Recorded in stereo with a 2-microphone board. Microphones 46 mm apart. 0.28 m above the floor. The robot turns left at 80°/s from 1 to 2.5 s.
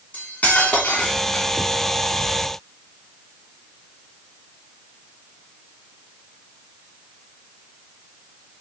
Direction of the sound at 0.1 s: 40° left.